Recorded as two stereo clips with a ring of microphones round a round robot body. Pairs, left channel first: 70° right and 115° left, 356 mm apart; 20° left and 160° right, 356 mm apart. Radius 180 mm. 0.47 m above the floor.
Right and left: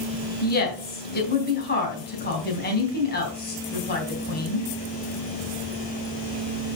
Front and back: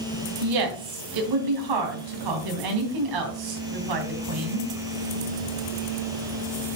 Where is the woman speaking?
130° right, 3.5 m.